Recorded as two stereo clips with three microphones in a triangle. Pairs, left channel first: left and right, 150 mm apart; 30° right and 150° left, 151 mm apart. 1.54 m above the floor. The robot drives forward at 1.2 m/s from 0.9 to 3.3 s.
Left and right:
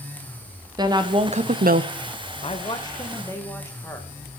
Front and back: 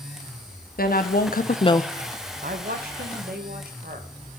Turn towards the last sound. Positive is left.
turn(degrees=160)